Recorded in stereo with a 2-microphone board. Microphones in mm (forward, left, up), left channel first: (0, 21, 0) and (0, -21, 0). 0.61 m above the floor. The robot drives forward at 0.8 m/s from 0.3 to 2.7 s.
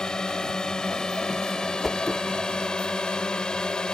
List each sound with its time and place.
0.0 s a drone: 15° left (ahead or behind); by 4.0 s 20° left (ahead or behind)
1.8 s a whoosh: 5° left (ahead or behind)